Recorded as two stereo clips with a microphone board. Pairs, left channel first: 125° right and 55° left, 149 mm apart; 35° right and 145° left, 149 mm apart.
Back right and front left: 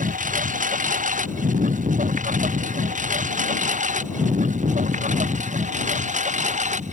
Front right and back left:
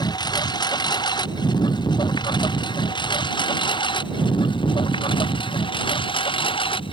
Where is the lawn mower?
30° left; by 6.9 s 20° left.